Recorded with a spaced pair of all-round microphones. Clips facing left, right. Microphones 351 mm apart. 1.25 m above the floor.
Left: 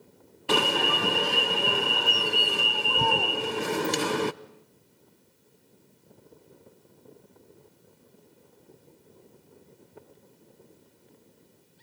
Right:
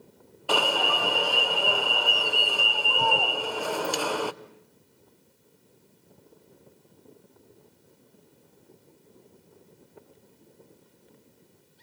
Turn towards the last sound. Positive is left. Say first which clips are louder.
# left 1 dB
turn(degrees=30)  # may be behind; listen again after turning